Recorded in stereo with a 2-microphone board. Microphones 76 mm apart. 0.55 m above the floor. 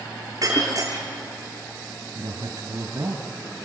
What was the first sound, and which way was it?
Breaking glass, 45° right (ahead or behind).